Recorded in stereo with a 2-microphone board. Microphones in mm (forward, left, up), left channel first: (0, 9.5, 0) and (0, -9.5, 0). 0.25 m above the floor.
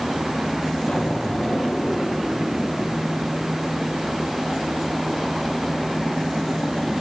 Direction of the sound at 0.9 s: 75° left (ahead or behind).